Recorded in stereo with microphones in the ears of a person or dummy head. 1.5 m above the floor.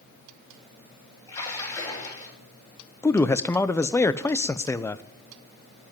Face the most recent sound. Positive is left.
turn(degrees=15)  # may be behind; listen again after turning